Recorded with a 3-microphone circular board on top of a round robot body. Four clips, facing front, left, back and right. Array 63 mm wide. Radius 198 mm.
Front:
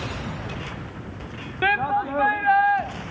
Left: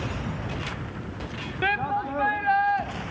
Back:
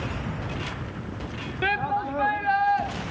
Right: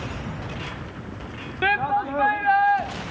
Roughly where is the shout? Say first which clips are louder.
Right 4 dB, front 4 dB; ahead right.